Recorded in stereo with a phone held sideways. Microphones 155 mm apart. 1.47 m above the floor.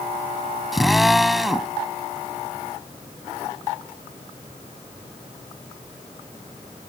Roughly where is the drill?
Centre.